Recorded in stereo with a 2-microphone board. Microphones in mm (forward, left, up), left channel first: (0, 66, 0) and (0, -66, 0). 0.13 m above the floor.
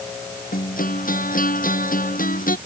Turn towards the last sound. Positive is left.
turn(degrees=85)